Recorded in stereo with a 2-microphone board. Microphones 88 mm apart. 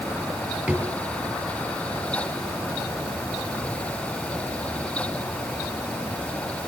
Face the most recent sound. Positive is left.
turn(degrees=-20)  # may be behind; listen again after turning